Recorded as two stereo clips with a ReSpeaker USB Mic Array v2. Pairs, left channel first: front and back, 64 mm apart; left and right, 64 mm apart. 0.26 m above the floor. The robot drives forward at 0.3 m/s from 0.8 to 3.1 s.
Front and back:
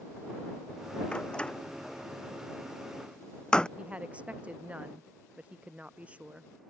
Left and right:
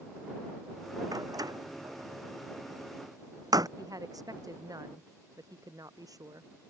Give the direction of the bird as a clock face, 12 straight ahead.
I don't hear a bird.